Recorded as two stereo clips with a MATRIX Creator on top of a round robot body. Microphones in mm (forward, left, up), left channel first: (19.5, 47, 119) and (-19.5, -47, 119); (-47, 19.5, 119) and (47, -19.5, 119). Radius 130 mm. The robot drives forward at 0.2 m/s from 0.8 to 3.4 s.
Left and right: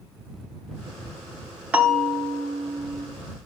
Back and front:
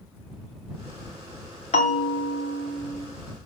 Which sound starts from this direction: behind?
A bell, at 1.7 s.